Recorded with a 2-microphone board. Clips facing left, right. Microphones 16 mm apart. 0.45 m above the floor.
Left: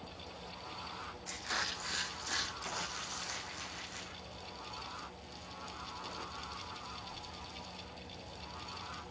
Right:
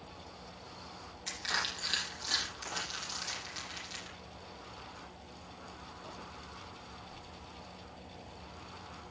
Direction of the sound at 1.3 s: 60° right (ahead or behind).